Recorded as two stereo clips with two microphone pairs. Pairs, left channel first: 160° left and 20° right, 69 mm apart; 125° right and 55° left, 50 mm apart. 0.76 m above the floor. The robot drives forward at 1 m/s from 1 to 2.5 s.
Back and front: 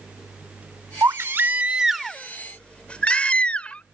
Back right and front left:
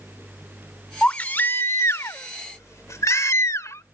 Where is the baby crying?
60° right; by 3.9 s 125° right.